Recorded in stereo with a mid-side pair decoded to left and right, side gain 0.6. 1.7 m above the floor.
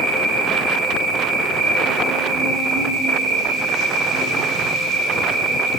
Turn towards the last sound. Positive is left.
turn(degrees=-55)